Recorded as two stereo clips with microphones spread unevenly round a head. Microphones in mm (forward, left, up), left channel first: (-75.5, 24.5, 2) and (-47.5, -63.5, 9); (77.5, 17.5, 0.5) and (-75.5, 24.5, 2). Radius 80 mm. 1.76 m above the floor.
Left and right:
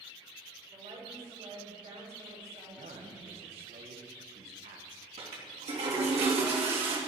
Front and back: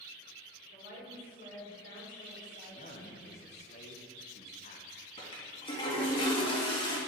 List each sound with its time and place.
0.7 s a woman speaking: 35° right, 6 m
2.6 s a man speaking: 55° right, 1.7 m
5.2 s a toilet flushing: 65° right, 2.5 m